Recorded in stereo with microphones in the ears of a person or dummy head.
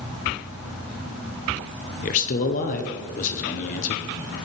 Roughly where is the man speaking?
Left.